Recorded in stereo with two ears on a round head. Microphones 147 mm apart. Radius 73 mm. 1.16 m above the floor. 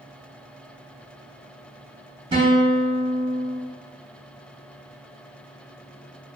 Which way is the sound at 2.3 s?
30° right (ahead or behind).